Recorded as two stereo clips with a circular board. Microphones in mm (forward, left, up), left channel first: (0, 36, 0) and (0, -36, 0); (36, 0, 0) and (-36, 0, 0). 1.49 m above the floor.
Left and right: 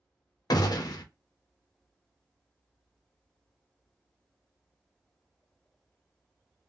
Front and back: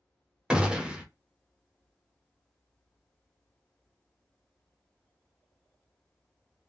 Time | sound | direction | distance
0.5 | a gunshot | 105° left | 0.5 m